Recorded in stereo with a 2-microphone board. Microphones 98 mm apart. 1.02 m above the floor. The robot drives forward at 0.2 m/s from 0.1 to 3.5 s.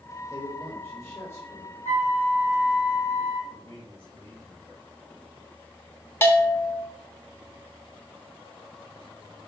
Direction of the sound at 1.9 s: 75° left (ahead or behind).